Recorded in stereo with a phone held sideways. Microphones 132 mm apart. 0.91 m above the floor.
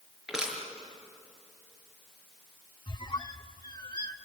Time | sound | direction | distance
0.3 | crushing | 5° right (ahead or behind) | 6 m
2.9 | a squeak | 35° left (ahead or behind) | 0.9 m